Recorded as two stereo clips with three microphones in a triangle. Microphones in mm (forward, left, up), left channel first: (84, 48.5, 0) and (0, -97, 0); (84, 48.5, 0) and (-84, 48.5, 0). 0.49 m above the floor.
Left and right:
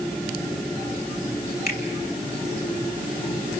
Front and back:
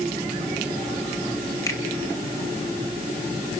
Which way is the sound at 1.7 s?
70° left.